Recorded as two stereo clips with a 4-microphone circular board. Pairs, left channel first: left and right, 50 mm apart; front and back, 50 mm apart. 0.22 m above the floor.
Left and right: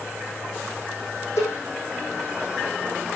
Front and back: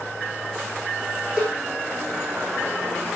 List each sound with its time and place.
1.4 s a cowbell: 110° left, 5.5 m